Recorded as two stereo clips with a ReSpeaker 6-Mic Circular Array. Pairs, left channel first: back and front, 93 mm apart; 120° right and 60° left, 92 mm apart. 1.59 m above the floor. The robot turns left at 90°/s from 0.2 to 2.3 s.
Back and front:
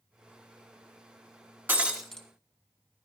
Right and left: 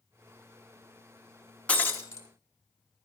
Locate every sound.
1.7 s breaking glass: 55° right, 1.3 m; by 2.2 s 105° right, 1.3 m